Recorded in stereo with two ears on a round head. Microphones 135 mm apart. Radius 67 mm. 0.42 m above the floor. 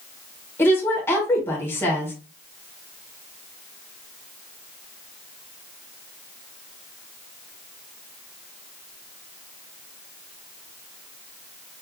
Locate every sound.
0.6 s a woman speaking: 15° left (ahead or behind), 1.4 m